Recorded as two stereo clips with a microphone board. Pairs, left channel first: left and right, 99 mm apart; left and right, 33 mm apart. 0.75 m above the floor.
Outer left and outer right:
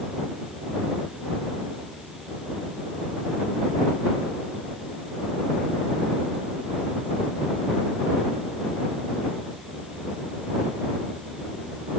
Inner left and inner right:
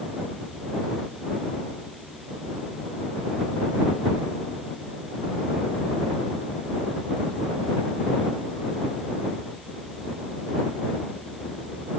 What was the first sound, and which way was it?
Only background noise.